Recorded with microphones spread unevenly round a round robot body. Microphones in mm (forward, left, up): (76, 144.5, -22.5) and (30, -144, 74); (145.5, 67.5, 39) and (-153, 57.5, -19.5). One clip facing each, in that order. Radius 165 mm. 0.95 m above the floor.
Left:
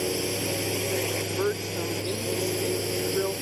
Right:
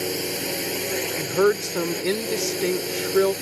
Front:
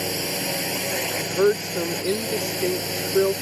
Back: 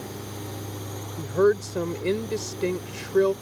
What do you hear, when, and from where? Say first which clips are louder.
0.0 s a drone: even, front 8 dB; 10° right
1.2 s a woman speaking: right 7 dB, even; 90° right